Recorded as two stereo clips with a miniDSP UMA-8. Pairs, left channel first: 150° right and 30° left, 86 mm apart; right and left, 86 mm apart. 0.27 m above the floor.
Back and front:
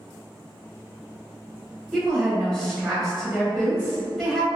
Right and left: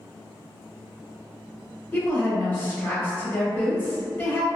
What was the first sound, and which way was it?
A woman speaking, 70° right.